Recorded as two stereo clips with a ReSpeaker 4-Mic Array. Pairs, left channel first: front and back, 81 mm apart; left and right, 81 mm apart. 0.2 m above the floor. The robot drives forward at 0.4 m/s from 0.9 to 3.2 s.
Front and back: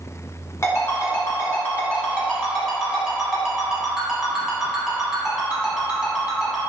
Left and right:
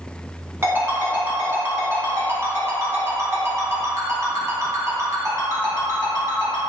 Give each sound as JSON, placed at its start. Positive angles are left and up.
{"t": 0.6, "sound": "a ringtone", "azimuth_deg": -40, "distance_m": 1.3}